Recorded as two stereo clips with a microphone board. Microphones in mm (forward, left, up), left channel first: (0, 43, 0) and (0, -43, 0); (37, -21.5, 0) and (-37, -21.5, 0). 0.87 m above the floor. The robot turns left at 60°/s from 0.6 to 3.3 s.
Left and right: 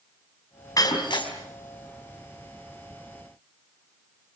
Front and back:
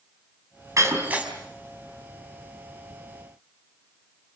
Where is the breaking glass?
135° left, 4 m; by 1.3 s 100° left, 4 m.